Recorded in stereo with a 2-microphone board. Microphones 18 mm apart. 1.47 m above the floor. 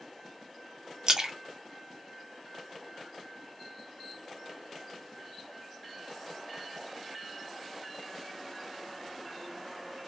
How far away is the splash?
About 0.7 m.